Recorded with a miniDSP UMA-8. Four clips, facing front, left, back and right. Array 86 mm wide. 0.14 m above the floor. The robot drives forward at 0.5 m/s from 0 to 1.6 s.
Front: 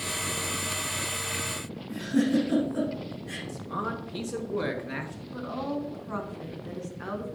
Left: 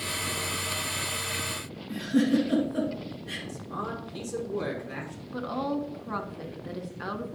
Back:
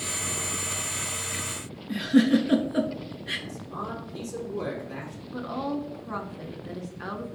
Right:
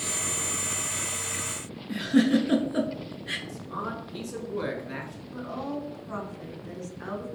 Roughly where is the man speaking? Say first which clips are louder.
Left 1 dB, front 6 dB; ahead.